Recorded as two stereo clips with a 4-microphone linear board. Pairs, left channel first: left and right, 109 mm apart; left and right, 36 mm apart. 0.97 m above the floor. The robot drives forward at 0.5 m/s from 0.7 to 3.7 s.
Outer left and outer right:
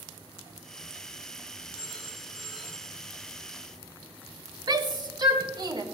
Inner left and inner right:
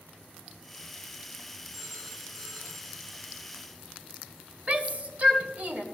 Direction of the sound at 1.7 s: 10° right (ahead or behind).